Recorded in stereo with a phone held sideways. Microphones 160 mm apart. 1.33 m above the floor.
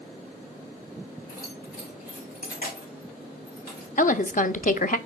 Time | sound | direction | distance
1.3 | keys jangling | 65° left (ahead or behind) | 2.5 m
4.0 | a woman speaking | 55° left (ahead or behind) | 0.7 m